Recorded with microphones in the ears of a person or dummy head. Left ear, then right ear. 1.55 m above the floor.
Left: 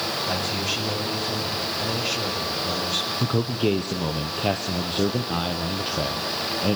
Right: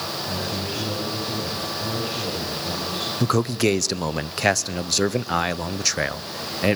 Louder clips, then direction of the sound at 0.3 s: Left 2 dB; 70° left (ahead or behind).